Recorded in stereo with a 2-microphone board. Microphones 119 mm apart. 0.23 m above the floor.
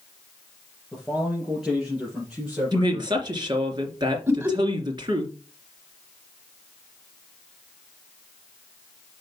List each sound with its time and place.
0.9 s a man speaking: centre (ahead or behind), 4 m; by 3.2 s 15° right (ahead or behind), 4.5 m
2.7 s a woman speaking: 40° right (ahead or behind), 2.5 m
4.3 s laughter: 20° right (ahead or behind), 1.4 m